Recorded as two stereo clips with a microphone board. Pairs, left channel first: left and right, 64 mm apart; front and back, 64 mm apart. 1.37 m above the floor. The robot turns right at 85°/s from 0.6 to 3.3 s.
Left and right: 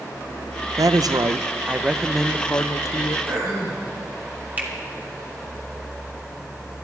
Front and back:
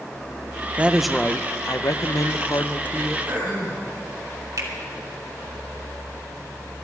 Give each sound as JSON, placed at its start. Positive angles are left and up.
{"t": 0.8, "sound": "a woman speaking", "azimuth_deg": -115, "distance_m": 0.7}
{"t": 3.3, "sound": "throat clearing", "azimuth_deg": -125, "distance_m": 6.0}
{"t": 4.6, "sound": "a finger snap", "azimuth_deg": -155, "distance_m": 2.5}